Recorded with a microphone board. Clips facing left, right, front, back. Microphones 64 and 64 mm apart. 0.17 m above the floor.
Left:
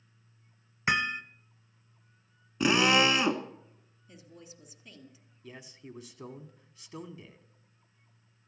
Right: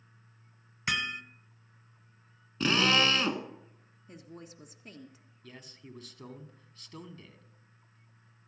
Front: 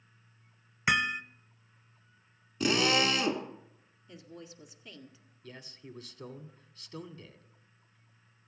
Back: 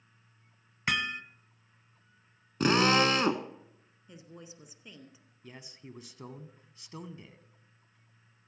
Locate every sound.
0.9 s hammering: 65° left, 0.8 m
2.6 s a drill: 160° left, 1.1 m
4.1 s a woman speaking: 110° right, 1.7 m
5.4 s a man speaking: 150° left, 1.1 m